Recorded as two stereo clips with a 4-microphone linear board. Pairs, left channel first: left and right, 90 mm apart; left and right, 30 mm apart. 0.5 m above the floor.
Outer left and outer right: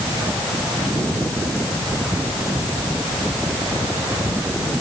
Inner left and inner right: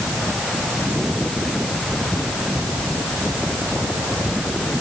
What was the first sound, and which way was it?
Only background noise.